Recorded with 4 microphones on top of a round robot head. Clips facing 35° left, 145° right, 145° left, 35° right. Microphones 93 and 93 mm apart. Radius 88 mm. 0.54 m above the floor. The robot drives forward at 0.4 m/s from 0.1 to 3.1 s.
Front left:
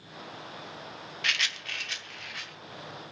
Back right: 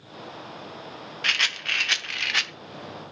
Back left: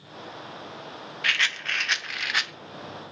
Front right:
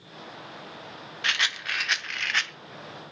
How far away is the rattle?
About 0.6 m.